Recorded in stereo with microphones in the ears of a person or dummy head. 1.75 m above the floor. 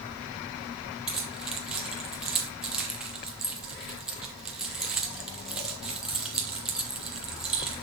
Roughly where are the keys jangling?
Centre.